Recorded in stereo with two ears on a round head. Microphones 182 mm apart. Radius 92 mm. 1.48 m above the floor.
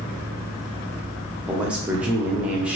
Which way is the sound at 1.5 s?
5° right (ahead or behind).